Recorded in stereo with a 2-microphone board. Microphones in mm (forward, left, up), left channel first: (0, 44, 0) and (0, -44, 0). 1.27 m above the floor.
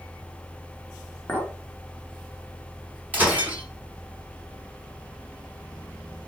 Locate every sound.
1.3 s a clink: 25° left (ahead or behind), 2.0 m
3.1 s breaking glass: 20° right (ahead or behind), 5 m